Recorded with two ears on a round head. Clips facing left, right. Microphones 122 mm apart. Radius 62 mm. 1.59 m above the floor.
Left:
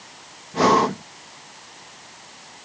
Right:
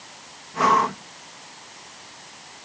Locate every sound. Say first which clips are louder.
0.5 s breathing: left 2 dB; 40° left (ahead or behind)